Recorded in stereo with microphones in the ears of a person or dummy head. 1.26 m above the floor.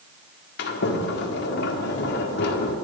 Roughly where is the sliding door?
Left.